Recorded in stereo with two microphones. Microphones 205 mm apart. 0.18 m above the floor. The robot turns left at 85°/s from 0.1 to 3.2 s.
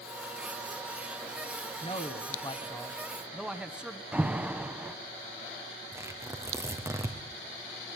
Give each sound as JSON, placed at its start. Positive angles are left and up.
{"t": 1.8, "sound": "a man speaking", "side_deg": 25, "distance_m": 1.2}
{"t": 4.1, "sound": "an alarm", "side_deg": -5, "distance_m": 1.2}
{"t": 5.9, "sound": "tearing paper", "side_deg": -15, "distance_m": 3.0}